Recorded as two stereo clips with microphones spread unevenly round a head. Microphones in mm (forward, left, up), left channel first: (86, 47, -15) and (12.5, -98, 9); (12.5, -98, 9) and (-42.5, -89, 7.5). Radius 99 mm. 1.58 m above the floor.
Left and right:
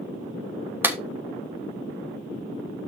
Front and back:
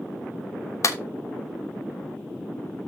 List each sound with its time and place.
0.8 s a clap: 40° right, 1.2 m